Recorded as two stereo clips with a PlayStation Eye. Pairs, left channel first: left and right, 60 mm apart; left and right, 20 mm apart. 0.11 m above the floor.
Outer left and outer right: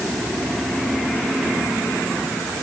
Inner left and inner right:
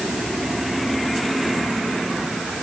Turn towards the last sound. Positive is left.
No sound to turn to.